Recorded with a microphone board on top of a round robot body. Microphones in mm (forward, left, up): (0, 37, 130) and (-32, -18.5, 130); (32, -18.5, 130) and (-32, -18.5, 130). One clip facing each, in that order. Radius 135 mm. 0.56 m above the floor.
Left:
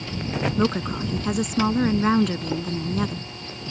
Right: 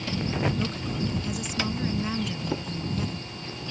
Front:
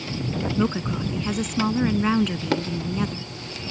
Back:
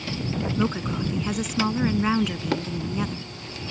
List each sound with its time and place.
0.6 s a woman speaking: 95° left